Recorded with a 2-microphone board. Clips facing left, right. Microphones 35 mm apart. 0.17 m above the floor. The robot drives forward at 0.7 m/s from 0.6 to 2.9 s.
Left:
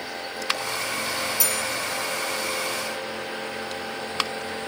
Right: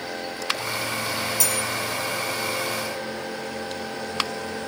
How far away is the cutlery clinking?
About 0.7 m.